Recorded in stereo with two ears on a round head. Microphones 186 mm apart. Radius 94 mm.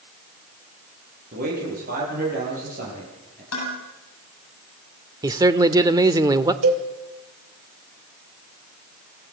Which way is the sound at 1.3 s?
45° right (ahead or behind).